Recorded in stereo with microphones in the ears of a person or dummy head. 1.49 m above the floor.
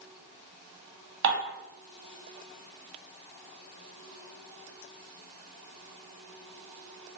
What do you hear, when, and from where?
1.2 s dishes clattering: 65° right (ahead or behind), 1.9 m